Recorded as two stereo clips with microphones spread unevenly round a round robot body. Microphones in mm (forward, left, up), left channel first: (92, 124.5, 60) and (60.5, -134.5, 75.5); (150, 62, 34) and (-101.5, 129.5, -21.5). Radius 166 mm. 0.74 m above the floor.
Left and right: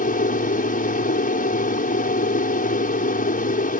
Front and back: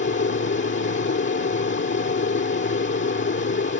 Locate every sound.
0.0 s an aircraft: 30° left